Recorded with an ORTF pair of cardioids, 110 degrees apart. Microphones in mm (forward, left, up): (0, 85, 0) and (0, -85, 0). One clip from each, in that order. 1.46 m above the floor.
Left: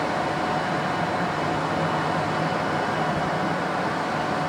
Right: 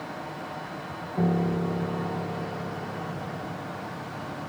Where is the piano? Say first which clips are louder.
Left 4 dB; 65° right, 0.7 m.